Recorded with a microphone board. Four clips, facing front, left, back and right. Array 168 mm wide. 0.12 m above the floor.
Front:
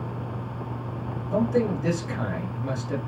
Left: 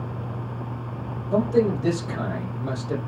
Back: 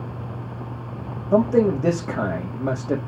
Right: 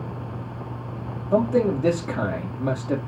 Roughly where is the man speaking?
Behind right.